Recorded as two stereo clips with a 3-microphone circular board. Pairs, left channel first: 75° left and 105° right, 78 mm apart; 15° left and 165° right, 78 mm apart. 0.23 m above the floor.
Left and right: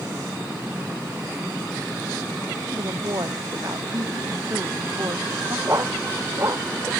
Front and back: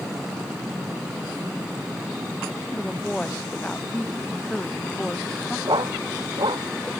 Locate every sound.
2.7 s a woman speaking: 65° right; by 5.6 s 60° right
5.7 s a dog barking: 155° right